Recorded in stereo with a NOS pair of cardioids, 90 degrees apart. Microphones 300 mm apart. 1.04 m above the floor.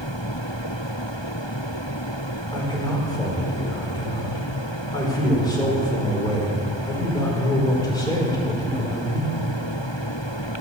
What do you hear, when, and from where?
2.5 s a man speaking: 15° left, 4 m